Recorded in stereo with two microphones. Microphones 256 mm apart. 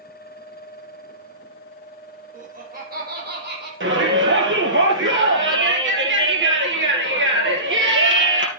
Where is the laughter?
35° right (ahead or behind), 6 m; by 3.7 s 45° right (ahead or behind), 6 m.